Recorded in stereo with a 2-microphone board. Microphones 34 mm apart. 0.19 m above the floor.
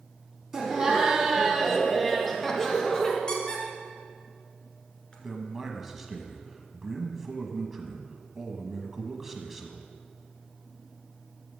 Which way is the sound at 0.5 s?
15° right (ahead or behind).